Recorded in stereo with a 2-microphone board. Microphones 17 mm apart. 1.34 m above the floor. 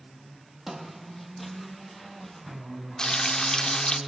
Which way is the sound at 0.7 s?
20° right (ahead or behind).